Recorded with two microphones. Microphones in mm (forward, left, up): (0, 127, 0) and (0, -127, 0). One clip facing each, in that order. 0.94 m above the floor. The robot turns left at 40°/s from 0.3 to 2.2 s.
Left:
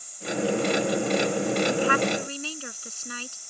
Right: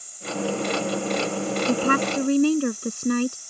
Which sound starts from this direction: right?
A woman speaking, at 1.7 s.